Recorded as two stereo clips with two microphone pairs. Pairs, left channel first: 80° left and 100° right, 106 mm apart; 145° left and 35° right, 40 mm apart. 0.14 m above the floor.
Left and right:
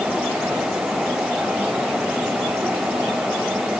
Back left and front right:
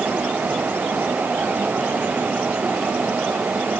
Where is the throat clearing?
No throat clearing in this recording.